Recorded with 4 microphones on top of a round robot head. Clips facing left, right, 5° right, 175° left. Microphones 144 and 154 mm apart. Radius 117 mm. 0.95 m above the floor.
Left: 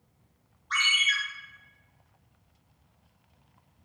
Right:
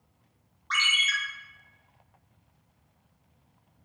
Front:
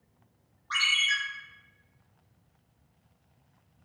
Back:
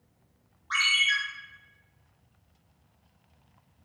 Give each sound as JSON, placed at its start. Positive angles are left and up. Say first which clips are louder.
{"t": 0.7, "sound": "a ringtone", "louder": "even, back 2 dB", "azimuth_deg": -90, "distance_m": 0.7}